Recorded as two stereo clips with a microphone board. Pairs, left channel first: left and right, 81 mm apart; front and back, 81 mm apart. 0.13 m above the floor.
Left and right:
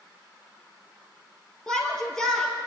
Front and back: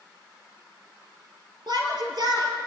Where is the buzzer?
No buzzer in this recording.